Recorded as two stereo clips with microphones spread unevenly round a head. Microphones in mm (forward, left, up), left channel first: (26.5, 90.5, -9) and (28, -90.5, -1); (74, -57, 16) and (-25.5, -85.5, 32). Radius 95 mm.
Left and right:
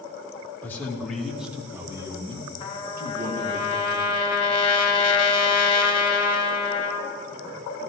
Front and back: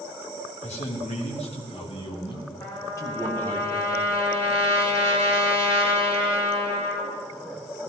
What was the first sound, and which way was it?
A man speaking, 10° left.